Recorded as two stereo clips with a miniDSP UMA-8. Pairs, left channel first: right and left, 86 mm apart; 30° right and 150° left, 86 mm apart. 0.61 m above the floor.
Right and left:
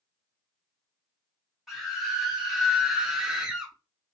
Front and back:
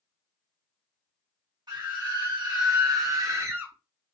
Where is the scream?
175° left, 1.8 m; by 3.8 s 150° left, 0.7 m.